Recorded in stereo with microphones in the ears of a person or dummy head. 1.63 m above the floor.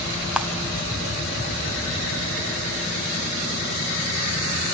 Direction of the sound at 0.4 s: 10° right (ahead or behind).